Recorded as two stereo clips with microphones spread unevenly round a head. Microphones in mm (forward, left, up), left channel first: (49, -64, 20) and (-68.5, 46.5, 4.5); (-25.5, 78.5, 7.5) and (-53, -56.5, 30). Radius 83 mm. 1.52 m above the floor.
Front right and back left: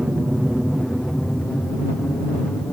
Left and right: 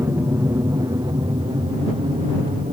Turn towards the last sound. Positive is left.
turn(degrees=-125)